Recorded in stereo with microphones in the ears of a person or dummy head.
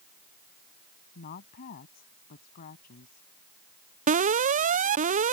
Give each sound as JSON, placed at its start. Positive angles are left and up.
{"t": 1.1, "sound": "a woman speaking", "side_deg": 50}
{"t": 4.1, "sound": "an alarm", "side_deg": -40}